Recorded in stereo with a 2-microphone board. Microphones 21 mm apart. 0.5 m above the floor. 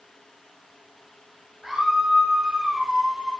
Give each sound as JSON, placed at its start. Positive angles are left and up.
{"t": 1.6, "sound": "a scream", "side_deg": -25, "distance_m": 9.5}